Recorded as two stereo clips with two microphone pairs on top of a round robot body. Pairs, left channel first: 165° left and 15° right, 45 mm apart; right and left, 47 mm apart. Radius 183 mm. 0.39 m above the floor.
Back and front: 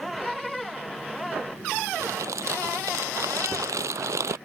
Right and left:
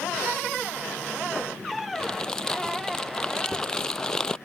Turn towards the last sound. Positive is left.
turn(degrees=-15)